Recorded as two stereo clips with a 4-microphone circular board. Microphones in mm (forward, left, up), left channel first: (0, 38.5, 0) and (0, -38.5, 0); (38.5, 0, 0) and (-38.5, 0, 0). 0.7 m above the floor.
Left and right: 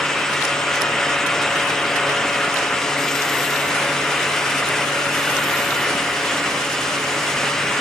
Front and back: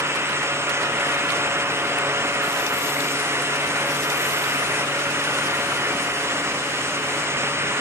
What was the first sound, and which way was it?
Only background noise.